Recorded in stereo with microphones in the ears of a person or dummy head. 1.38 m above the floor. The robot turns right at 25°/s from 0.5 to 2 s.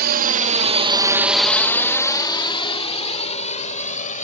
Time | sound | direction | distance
0.0 | a drone | 55° right (ahead or behind) | ?